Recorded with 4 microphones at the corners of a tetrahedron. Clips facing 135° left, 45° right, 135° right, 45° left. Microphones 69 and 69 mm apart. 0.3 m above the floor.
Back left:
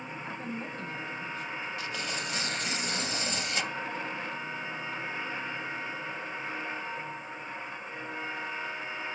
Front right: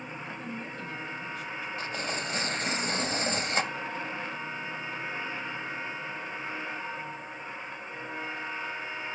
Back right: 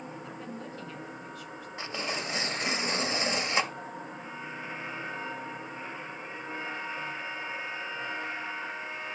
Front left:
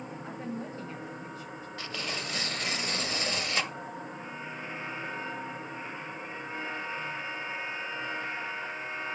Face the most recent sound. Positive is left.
turn(degrees=-75)